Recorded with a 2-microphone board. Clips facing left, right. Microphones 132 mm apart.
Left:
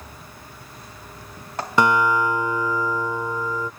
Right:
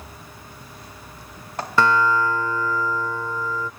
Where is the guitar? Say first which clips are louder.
Even; 15° left (ahead or behind).